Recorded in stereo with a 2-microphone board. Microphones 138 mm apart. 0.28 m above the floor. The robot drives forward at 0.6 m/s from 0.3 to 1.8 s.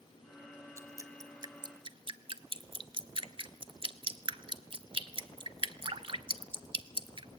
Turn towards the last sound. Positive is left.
turn(degrees=-40)  # may be behind; listen again after turning